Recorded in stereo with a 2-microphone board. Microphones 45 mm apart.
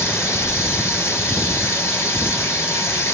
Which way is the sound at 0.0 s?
90° left.